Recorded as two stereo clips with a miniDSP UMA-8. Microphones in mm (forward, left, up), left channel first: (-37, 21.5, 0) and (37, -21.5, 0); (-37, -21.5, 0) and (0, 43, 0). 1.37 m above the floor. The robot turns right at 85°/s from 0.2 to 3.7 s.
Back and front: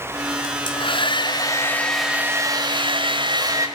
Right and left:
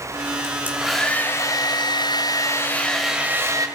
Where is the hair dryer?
110° left, 3.5 m; by 3.7 s 25° left, 3.5 m.